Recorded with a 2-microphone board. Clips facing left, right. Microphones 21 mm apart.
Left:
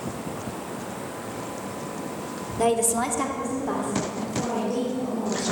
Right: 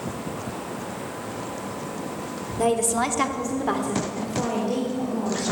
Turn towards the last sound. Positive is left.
turn(degrees=-70)  # may be behind; listen again after turning